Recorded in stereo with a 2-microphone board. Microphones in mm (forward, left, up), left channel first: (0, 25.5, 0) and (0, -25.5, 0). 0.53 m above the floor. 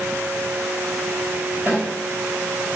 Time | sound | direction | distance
1.7 | a snare drum | 35° right (ahead or behind) | 1.3 m